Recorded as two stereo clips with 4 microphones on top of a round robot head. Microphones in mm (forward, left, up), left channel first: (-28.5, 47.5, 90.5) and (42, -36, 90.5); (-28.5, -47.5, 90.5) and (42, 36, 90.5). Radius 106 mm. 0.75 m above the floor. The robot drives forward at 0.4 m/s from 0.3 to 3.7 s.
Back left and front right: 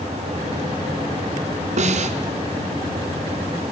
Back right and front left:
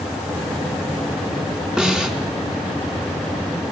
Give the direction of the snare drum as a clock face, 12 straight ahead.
1 o'clock.